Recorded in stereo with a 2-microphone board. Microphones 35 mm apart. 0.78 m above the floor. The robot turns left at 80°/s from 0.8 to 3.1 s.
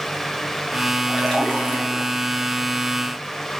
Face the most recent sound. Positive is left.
turn(degrees=20)